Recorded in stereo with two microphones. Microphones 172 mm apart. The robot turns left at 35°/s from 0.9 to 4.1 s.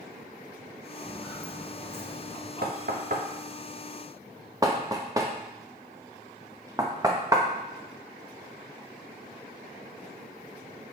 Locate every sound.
1.0 s footsteps: 5° right (ahead or behind), 1.8 m; by 2.5 s 40° left (ahead or behind), 1.7 m
2.6 s knocking: 65° right (ahead or behind), 0.8 m; by 7.5 s 20° right (ahead or behind), 0.8 m